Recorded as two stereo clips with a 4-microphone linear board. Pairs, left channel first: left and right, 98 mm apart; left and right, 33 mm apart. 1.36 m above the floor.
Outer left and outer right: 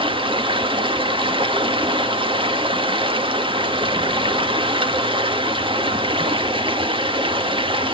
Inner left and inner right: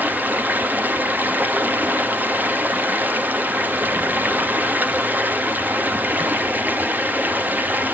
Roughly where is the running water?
Right.